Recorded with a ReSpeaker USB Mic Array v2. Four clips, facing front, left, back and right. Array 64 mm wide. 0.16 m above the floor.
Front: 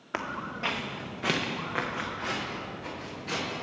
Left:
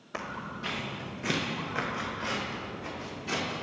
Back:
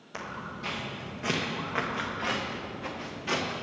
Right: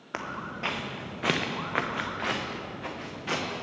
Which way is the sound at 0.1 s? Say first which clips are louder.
Right 2 dB, front 4 dB; 35° right.